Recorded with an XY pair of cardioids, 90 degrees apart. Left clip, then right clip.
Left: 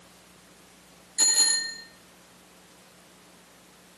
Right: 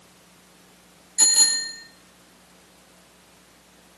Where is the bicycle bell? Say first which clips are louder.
Right 4 dB; 30° right, 5 m.